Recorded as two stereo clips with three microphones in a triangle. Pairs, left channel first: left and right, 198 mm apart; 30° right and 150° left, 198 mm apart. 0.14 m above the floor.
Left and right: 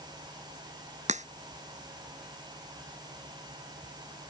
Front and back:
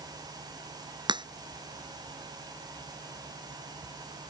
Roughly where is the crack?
Behind right.